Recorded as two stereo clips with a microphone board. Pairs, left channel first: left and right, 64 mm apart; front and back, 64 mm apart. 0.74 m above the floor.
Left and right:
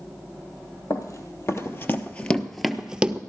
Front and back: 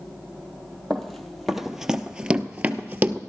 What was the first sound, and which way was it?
Running footsteps, 85° left.